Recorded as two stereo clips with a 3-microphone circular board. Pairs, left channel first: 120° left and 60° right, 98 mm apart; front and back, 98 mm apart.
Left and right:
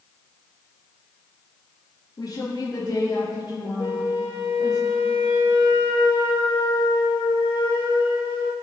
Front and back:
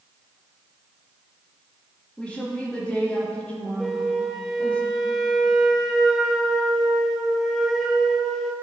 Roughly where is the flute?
Left.